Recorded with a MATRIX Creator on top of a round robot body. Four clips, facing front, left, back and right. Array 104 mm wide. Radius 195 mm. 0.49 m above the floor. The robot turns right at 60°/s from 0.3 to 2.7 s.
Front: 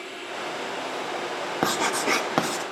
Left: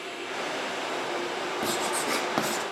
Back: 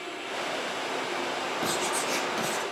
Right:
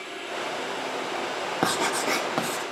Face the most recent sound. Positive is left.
turn(degrees=25)